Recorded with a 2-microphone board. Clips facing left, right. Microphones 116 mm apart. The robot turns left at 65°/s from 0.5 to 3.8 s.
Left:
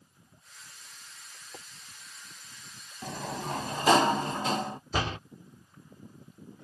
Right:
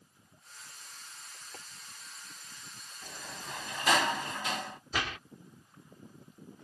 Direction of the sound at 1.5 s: 15° left (ahead or behind).